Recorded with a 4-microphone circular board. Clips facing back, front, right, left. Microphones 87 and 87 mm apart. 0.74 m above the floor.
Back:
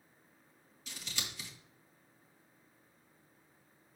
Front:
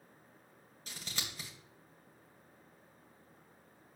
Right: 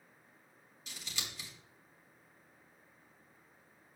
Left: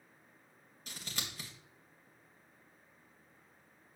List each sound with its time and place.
0.9 s scissors: 45° left, 2 m